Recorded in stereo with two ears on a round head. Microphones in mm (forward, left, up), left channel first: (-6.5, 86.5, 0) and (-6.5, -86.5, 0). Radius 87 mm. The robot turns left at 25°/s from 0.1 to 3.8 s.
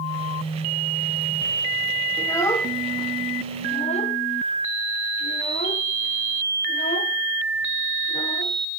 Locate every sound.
2.2 s a child speaking: 15° left (ahead or behind), 1.1 m; by 8.6 s 35° left (ahead or behind), 1.1 m